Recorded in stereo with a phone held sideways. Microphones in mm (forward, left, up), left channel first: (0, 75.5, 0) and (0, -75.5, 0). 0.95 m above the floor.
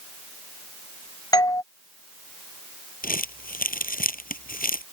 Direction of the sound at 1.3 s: 25° left (ahead or behind).